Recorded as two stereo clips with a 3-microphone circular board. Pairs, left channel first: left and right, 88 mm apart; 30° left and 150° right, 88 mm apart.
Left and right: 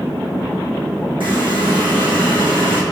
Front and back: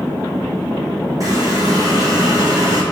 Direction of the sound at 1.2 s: 105° right.